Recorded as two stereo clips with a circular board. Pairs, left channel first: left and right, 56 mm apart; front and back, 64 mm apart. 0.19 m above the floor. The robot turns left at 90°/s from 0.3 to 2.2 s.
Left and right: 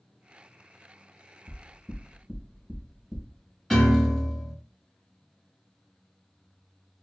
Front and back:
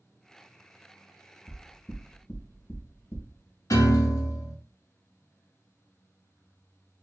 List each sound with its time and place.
1.5 s knocking: 60° left, 0.8 m; by 3.3 s 5° right, 0.8 m
3.7 s a piano: 5° left, 0.7 m